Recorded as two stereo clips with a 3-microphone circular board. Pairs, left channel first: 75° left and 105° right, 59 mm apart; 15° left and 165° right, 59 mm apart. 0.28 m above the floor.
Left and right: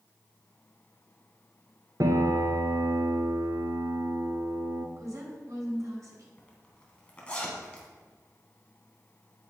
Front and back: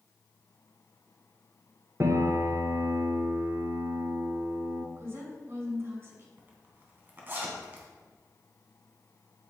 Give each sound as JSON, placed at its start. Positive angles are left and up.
{"t": 2.0, "sound": "a piano", "azimuth_deg": -125, "distance_m": 0.9}
{"t": 5.0, "sound": "a woman speaking", "azimuth_deg": -125, "distance_m": 3.0}
{"t": 6.4, "sound": "a zipper", "azimuth_deg": 145, "distance_m": 2.0}